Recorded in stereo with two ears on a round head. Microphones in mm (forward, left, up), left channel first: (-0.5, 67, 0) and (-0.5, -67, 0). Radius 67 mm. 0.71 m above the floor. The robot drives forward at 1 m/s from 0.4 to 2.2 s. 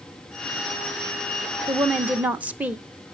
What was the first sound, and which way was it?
A woman speaking, 10° right (ahead or behind).